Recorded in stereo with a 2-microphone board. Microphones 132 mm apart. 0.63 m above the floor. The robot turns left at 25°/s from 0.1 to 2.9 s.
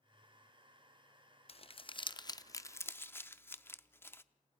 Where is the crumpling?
45° left (ahead or behind), 0.6 m; by 4.2 s 15° left (ahead or behind), 0.6 m.